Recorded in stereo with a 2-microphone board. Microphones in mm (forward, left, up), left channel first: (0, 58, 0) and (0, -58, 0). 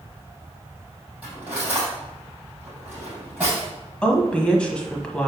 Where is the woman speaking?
10° left (ahead or behind), 1.0 m.